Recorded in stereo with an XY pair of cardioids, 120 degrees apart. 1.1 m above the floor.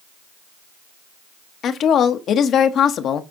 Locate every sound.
1.6 s a woman speaking: 55° left, 1.0 m